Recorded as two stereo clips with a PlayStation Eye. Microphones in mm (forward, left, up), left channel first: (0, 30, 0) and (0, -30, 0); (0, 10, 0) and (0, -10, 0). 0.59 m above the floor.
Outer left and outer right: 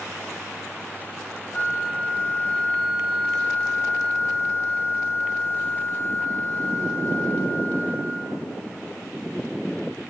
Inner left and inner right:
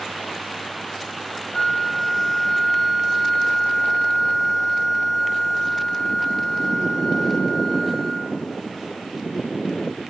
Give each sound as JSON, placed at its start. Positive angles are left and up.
{"t": 1.5, "sound": "a flute", "side_deg": 35, "distance_m": 1.0}